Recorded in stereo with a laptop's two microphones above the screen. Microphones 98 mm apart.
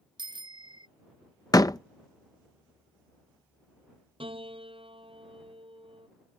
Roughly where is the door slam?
Left.